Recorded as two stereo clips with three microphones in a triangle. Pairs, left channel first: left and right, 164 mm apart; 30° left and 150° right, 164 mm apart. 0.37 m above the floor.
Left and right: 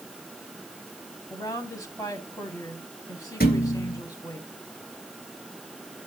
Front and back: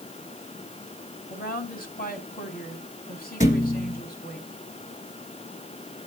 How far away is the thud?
About 2.5 m.